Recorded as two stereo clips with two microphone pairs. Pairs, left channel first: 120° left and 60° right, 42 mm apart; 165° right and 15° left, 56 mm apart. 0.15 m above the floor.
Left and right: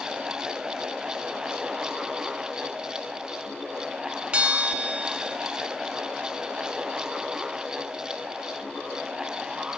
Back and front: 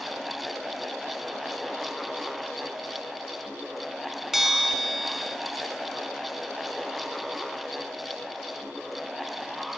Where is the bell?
65° right, 1.1 m.